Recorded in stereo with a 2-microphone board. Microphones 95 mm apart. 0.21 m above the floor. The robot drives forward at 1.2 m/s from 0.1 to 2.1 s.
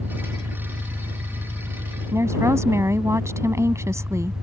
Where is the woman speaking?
30° right (ahead or behind).